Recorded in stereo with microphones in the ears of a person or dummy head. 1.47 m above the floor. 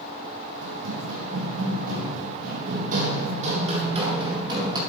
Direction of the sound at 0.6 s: 70° right (ahead or behind).